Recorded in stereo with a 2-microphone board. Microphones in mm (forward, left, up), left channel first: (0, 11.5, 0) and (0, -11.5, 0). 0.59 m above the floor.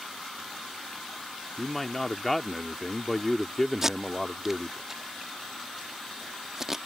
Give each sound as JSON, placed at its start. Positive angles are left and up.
{"t": 1.6, "sound": "a man speaking", "side_deg": 10}
{"t": 3.8, "sound": "tape being pulled", "side_deg": -15}